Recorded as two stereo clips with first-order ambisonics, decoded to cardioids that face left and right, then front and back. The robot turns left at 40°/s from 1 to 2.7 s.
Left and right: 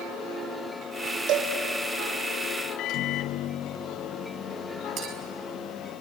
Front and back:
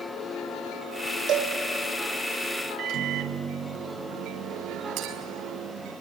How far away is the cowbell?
About 3 m.